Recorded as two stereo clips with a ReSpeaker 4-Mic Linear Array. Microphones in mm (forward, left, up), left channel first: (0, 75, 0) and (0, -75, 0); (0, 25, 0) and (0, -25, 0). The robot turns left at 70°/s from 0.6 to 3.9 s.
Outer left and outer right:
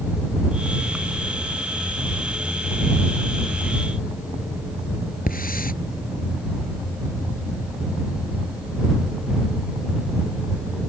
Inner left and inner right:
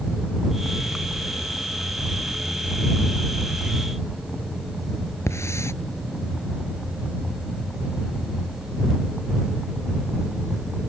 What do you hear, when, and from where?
5.3 s a hiss: 75° left (ahead or behind)